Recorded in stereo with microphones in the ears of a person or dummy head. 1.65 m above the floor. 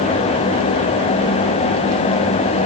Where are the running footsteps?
No running footsteps in this recording.